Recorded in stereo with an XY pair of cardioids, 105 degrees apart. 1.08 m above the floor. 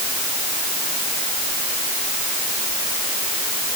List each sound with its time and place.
Only background noise.